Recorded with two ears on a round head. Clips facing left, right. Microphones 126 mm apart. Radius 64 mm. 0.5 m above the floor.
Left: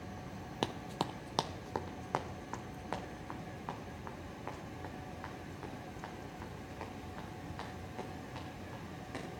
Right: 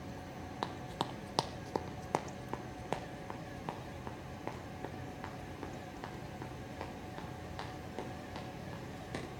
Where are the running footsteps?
25° left (ahead or behind), 0.6 m; by 9.3 s 30° right (ahead or behind), 6.5 m.